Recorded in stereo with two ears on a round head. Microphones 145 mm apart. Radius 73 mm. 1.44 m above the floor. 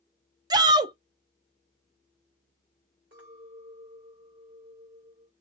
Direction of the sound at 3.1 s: 60° right (ahead or behind).